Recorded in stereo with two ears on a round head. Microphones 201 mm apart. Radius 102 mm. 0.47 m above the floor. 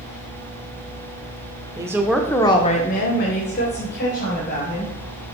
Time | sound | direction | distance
1.8 | a woman speaking | 15° right (ahead or behind) | 0.9 m